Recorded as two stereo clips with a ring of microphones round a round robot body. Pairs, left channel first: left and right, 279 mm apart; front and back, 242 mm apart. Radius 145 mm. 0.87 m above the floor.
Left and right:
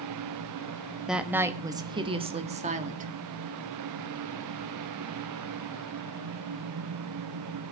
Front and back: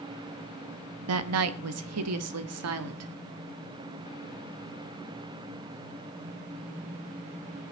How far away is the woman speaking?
About 1.2 m.